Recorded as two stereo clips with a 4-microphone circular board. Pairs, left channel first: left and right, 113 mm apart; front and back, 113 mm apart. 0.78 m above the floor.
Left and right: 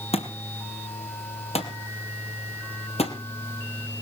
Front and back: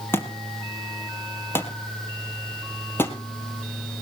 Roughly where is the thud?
Left.